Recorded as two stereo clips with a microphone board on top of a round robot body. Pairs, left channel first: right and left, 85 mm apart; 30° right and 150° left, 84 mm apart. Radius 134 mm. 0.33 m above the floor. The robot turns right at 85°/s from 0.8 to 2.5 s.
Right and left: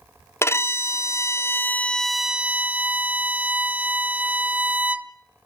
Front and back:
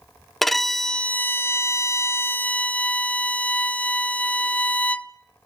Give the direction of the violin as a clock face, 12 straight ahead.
4 o'clock.